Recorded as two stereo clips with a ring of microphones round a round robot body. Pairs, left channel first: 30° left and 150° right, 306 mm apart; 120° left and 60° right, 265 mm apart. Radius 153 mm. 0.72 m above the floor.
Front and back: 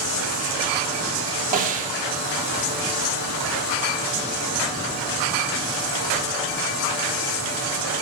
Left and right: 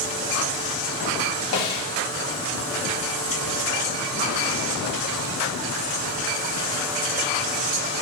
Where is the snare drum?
145° left, 1.7 m.